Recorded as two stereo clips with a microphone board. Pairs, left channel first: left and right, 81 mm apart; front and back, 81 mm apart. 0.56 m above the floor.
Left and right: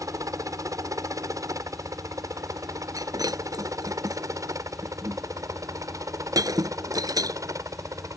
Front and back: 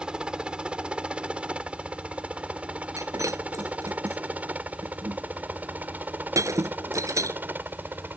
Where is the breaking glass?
130° right.